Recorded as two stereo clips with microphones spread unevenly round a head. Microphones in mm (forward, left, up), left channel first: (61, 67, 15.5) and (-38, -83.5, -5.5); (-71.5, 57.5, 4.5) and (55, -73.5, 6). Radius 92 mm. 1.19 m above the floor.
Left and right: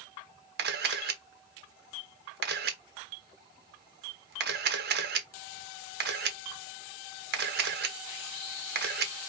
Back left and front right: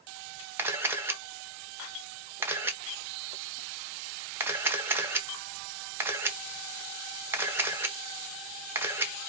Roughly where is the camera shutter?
Behind right.